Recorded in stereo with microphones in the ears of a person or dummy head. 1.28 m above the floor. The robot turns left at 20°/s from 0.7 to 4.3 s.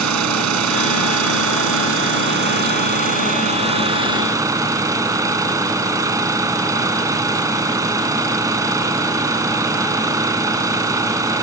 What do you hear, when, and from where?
0.0 s an engine running: 85° right; by 11.4 s 160° right